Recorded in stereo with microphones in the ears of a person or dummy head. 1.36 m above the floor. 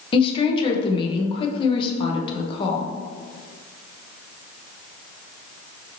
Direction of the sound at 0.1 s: 30° left (ahead or behind).